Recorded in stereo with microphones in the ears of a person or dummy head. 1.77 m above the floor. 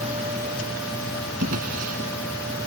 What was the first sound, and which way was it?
A drawer, 50° right (ahead or behind).